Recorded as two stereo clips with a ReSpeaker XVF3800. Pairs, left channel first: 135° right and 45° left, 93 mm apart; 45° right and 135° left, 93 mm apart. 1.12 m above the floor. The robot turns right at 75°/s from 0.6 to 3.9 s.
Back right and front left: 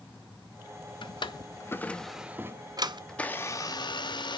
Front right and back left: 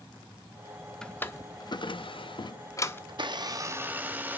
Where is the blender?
140° left, 0.8 m; by 4.4 s 155° right, 0.8 m.